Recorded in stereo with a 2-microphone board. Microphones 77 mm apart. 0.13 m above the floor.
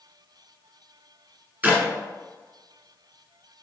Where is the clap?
20° right (ahead or behind), 0.9 m.